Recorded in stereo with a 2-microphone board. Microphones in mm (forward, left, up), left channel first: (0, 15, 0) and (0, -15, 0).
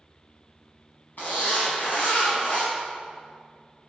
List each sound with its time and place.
1.2 s a zipper: 70° left (ahead or behind), 4 m